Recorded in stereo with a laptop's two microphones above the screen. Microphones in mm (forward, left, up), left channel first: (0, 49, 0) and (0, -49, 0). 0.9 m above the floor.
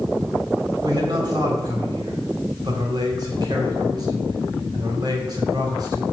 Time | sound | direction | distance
0.8 | a man speaking | 45° right (ahead or behind) | 2 m